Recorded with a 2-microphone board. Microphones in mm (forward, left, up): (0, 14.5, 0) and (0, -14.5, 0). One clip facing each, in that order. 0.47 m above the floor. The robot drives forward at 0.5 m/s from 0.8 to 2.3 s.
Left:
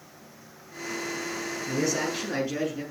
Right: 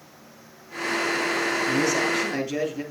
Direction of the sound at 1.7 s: 10° left (ahead or behind).